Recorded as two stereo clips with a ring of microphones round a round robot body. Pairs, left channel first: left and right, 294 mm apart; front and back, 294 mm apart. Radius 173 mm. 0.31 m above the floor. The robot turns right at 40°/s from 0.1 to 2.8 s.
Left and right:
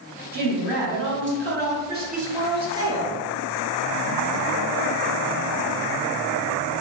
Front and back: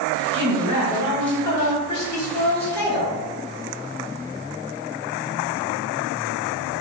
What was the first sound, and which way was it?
A woman speaking, 120° right.